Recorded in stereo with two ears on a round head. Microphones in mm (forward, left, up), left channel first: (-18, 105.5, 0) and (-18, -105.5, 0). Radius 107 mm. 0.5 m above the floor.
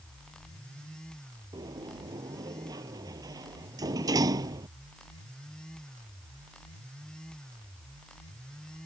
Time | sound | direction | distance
1.5 | a sliding door | 15° right (ahead or behind) | ?